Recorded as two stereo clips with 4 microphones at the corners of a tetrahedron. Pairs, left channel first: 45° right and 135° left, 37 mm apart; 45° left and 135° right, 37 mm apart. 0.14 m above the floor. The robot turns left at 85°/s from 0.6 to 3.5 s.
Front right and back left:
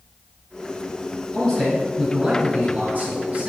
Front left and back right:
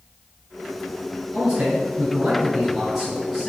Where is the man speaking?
85° right, 1.5 m; by 3.5 s 95° left, 1.5 m.